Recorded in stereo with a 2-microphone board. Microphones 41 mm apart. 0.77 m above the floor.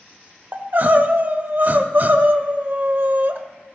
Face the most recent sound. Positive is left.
turn(degrees=-50)  # may be behind; listen again after turning